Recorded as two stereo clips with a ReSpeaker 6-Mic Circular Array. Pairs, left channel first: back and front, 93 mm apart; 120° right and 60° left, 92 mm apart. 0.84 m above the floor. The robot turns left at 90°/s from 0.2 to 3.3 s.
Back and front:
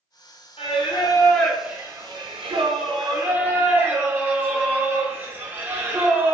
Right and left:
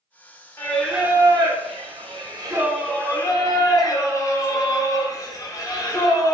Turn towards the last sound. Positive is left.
turn(degrees=-65)